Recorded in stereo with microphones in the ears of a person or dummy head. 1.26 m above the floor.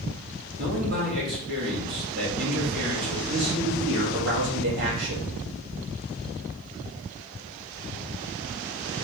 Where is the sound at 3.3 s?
60° right (ahead or behind), 2.0 m.